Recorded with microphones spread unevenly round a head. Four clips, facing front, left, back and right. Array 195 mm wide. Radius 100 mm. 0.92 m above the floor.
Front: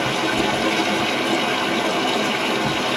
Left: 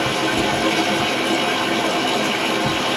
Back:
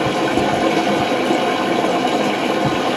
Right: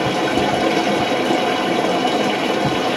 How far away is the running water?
About 1.9 m.